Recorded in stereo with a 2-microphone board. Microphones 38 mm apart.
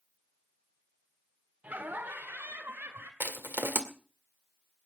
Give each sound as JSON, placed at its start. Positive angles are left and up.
{"t": 1.6, "sound": "laughter", "side_deg": -45, "distance_m": 1.5}
{"t": 3.2, "sound": "crushing", "side_deg": -65, "distance_m": 1.9}